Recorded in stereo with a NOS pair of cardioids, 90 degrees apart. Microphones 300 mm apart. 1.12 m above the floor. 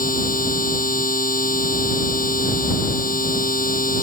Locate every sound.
0.0 s a machine running: 25° left